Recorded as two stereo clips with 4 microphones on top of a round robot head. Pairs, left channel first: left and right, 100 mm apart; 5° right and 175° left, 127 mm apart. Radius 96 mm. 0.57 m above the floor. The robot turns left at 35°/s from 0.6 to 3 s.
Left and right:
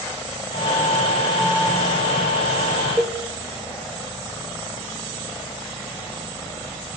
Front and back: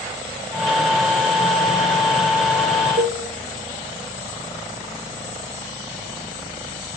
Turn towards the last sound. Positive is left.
turn(degrees=-165)